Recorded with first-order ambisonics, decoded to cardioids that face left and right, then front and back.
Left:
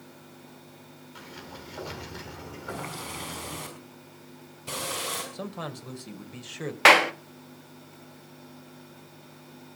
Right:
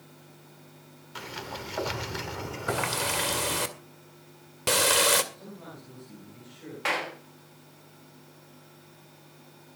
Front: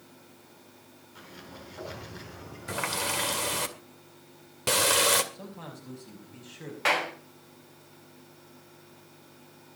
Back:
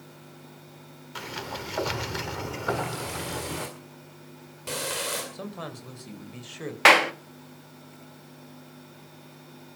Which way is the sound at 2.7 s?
55° right.